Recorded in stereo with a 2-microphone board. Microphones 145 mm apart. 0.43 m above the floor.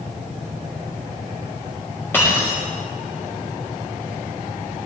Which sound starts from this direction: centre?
Breaking glass, at 2.1 s.